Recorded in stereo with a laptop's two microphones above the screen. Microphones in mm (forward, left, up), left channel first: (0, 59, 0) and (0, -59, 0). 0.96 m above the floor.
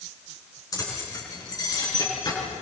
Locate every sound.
0.7 s keys jangling: 30° left (ahead or behind), 7 m; by 2.4 s 40° left (ahead or behind), 8 m